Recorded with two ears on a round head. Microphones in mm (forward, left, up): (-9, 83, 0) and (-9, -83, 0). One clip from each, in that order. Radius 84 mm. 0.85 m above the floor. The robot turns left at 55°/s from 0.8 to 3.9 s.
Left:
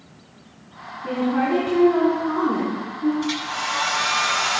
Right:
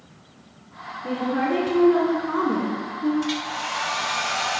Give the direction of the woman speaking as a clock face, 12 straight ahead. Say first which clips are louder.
Left 2 dB; 11 o'clock.